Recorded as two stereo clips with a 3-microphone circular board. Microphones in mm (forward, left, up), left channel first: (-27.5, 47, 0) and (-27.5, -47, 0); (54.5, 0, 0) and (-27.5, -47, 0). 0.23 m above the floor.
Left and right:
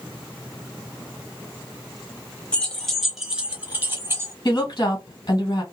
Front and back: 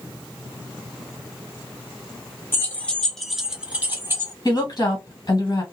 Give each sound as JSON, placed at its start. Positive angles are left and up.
{"t": 2.5, "sound": "keys jangling", "azimuth_deg": 30, "distance_m": 0.9}
{"t": 4.5, "sound": "a woman speaking", "azimuth_deg": 60, "distance_m": 2.0}